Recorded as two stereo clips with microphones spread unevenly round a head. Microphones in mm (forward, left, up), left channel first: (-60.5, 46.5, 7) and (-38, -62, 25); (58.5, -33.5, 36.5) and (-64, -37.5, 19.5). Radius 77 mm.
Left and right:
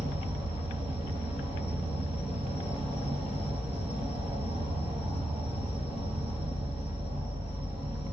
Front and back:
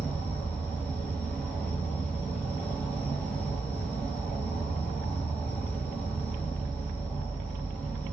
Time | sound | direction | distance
0.0 | an insect | 85° right | 1.6 m